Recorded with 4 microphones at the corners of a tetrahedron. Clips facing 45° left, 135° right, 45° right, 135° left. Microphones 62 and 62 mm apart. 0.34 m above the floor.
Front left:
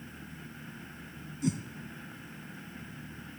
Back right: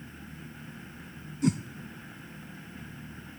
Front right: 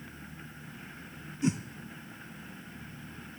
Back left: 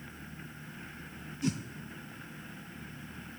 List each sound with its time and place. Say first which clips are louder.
1.4 s a whoosh: back right 5 dB, front right 4 dB; 115° right, 0.5 m